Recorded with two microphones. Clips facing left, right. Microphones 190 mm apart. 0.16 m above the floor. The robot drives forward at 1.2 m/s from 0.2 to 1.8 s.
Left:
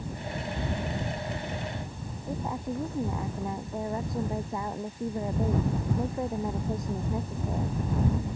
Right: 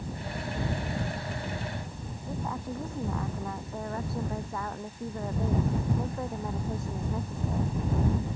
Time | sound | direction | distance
2.3 | a woman speaking | 15° left (ahead or behind) | ?